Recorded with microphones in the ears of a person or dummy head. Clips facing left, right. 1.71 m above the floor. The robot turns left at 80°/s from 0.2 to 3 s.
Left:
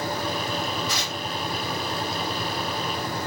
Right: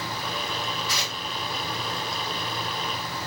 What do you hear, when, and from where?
0.9 s tearing paper: 25° left (ahead or behind), 2.5 m; by 1.2 s 45° left (ahead or behind), 2.5 m